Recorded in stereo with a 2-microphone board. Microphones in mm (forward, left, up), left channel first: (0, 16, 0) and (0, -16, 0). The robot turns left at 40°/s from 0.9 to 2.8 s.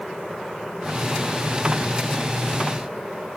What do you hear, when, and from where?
Only background noise.